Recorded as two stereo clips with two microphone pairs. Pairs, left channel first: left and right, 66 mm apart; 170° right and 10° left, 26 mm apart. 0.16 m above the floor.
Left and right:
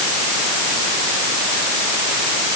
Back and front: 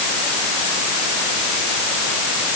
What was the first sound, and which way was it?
Only background noise.